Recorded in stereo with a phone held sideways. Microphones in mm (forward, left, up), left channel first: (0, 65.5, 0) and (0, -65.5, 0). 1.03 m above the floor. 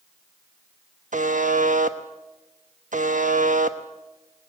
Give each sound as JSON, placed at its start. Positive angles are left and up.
{"t": 1.1, "sound": "a buzzer", "side_deg": -80, "distance_m": 1.1}